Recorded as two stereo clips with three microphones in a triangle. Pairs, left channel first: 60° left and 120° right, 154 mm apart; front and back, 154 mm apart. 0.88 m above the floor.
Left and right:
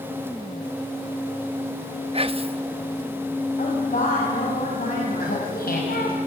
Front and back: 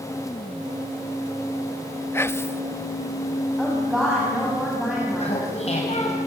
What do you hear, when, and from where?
2.1 s whispering: 70° right, 1.0 m
3.6 s a woman speaking: 95° left, 7 m
5.2 s laughter: 45° left, 5 m